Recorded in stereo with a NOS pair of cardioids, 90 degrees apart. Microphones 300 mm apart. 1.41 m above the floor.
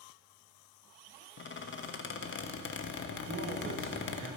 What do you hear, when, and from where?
1.4 s a squeak: 40° left, 1.1 m
3.3 s a man speaking: 40° right, 2.5 m